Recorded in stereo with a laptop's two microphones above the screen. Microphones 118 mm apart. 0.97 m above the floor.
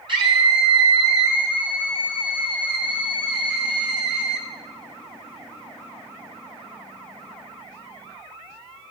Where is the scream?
45° right (ahead or behind), 8 m.